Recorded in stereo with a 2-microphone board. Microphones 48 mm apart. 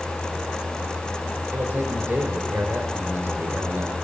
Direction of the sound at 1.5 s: 50° right (ahead or behind).